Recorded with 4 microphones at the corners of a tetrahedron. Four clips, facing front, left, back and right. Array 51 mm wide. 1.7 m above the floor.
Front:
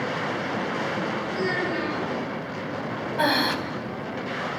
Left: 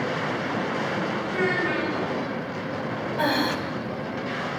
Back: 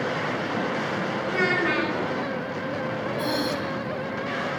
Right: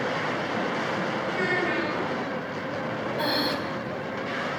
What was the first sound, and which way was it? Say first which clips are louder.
A child speaking: left 2 dB, back 6 dB; 170° left.